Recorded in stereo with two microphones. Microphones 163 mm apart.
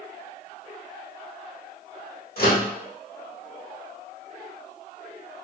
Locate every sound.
2.4 s a microwave: 65° left (ahead or behind), 1.1 m